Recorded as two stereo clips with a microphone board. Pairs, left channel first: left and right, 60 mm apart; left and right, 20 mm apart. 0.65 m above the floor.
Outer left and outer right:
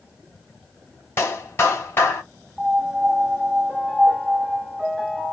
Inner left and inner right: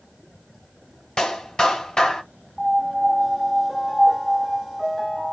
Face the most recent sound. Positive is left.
turn(degrees=0)  # may be behind; listen again after turning